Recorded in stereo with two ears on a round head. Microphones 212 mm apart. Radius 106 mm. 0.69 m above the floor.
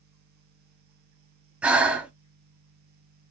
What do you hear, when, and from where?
1.6 s breathing: 5° right (ahead or behind), 0.6 m